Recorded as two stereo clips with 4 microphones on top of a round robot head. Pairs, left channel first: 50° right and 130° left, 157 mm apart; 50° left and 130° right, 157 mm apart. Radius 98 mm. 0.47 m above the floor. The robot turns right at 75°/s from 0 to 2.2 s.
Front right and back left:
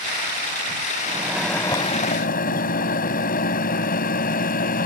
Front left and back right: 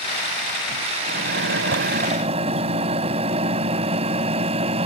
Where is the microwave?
165° right; by 4.9 s 80° right.